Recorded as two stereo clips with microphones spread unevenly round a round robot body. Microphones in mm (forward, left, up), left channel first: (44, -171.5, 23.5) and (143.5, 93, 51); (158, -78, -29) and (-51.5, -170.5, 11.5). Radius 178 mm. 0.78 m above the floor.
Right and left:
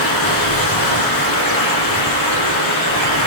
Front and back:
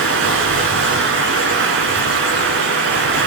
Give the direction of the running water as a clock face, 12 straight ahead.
4 o'clock.